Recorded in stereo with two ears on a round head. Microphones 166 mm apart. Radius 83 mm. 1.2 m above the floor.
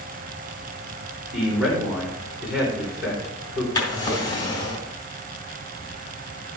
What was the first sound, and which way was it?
A man speaking, 5° right (ahead or behind).